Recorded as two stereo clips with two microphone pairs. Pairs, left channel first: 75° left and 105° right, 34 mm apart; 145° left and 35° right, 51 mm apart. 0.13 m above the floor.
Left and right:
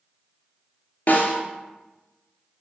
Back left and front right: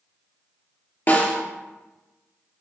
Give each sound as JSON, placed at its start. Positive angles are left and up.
{"t": 1.1, "sound": "a snare drum", "azimuth_deg": 105, "distance_m": 2.0}